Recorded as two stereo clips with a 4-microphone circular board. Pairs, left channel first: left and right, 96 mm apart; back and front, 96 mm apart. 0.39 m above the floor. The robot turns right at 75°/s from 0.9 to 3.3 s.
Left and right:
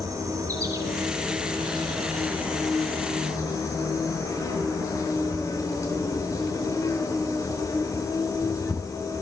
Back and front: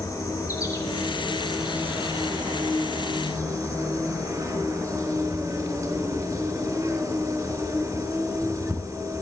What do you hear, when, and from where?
0.0 s an insect: 130° right, 3 m; by 9.2 s 50° left, 3 m